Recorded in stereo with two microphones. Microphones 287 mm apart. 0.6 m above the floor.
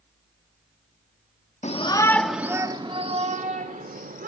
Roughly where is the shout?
Left.